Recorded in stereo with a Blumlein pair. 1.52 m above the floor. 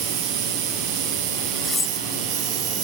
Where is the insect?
40° right.